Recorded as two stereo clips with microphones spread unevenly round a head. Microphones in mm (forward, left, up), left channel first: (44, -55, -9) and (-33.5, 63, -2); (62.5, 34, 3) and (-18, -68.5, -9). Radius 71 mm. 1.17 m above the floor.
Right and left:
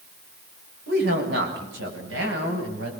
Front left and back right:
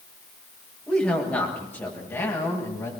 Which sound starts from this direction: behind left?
A woman speaking, at 0.9 s.